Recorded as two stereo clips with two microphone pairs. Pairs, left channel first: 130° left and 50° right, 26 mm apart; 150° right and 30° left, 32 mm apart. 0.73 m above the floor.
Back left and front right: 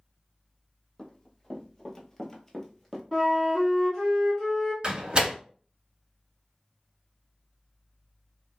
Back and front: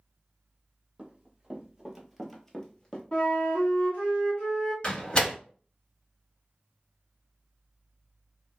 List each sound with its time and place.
1.0 s running footsteps: 70° left, 1.1 m; by 3.0 s 150° right, 0.8 m
3.1 s a flute: 165° right, 1.2 m
4.8 s a door slam: 100° right, 0.8 m